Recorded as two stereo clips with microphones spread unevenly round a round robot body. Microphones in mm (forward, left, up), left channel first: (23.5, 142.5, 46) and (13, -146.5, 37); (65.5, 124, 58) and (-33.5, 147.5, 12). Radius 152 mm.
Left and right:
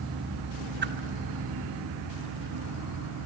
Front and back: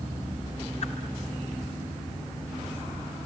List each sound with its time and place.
0.8 s a whoosh: 50° right, 1.6 m